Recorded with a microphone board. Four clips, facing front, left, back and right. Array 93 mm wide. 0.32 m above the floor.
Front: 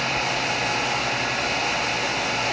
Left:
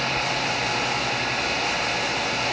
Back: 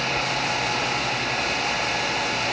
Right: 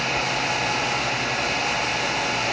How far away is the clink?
No clink in this recording.